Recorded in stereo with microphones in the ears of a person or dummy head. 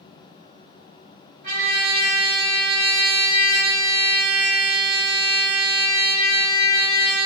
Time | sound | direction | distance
1.4 | a trumpet | 55° right (ahead or behind) | 1.6 m